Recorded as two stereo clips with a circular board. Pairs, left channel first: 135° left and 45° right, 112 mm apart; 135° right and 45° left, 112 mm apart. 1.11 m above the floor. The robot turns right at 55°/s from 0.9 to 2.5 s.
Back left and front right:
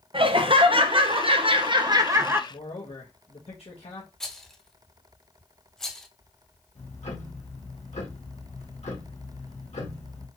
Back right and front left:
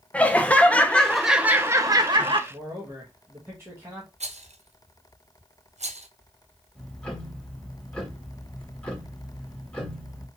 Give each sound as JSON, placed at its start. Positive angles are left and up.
{"t": 0.1, "sound": "laughter", "azimuth_deg": -60, "distance_m": 0.7}
{"t": 2.5, "sound": "a man speaking", "azimuth_deg": 110, "distance_m": 1.3}
{"t": 4.2, "sound": "a rattle", "azimuth_deg": 50, "distance_m": 0.5}
{"t": 6.8, "sound": "ticking", "azimuth_deg": 145, "distance_m": 1.6}